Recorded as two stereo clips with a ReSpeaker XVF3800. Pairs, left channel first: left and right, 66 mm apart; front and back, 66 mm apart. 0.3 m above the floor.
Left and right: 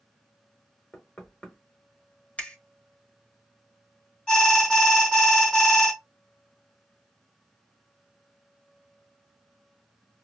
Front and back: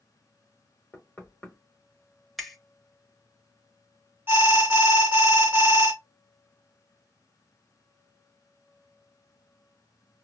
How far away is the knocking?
About 1.2 m.